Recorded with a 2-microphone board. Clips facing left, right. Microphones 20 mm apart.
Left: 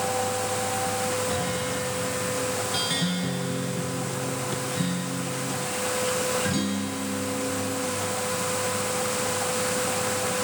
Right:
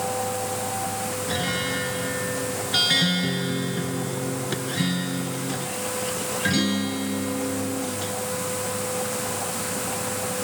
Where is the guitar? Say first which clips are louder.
Right 2 dB; 35° right (ahead or behind).